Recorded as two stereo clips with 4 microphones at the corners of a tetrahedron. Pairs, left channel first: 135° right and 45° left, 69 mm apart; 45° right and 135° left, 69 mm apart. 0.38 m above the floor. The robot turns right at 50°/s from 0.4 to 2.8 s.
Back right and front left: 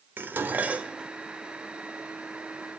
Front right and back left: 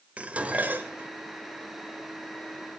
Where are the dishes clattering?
85° left, 0.8 m; by 1.1 s 120° left, 0.8 m.